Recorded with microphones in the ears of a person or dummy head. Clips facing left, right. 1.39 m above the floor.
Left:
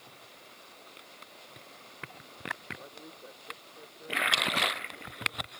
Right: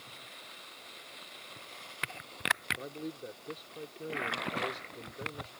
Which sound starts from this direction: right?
A man speaking, at 2.8 s.